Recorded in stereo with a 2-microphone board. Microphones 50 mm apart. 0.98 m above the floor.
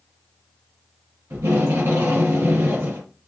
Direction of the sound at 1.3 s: 55° right (ahead or behind).